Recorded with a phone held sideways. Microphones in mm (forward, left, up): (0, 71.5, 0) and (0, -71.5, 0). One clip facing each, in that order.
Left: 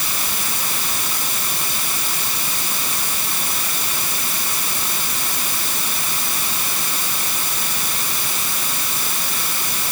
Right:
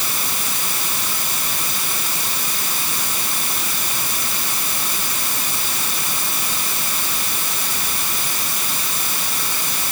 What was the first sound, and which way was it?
Only background noise.